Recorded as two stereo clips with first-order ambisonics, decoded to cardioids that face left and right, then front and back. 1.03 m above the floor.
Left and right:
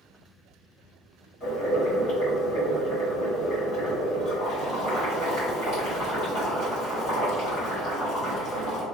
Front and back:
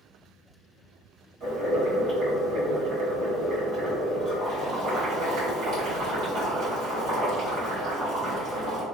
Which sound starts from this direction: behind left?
Boiling, at 1.4 s.